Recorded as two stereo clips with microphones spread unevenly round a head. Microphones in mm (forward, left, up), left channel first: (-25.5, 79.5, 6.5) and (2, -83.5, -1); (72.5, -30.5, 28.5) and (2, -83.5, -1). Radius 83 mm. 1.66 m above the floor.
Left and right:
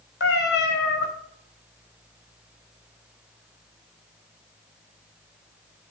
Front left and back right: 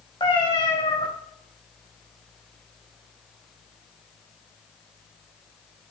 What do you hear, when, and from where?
0.2 s a cat meowing: 85° left, 3.5 m